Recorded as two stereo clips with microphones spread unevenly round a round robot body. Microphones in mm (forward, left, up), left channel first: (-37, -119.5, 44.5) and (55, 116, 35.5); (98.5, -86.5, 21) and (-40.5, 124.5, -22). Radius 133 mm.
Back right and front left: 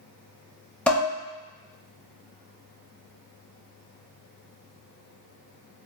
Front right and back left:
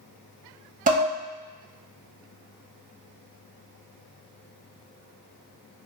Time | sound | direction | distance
0.9 | dishes clattering | 165° left | 0.8 m